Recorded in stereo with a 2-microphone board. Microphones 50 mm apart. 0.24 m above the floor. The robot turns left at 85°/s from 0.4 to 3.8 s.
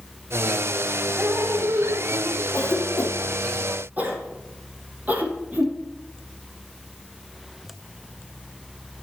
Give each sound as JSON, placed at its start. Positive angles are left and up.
{"t": 1.2, "sound": "dripping", "azimuth_deg": -30, "distance_m": 1.5}
{"t": 2.5, "sound": "a cough", "side_deg": 65, "distance_m": 3.0}